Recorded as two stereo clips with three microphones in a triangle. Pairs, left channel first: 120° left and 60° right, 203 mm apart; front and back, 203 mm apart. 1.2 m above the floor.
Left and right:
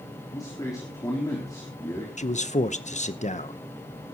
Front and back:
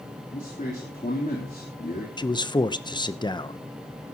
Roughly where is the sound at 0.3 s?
Ahead left.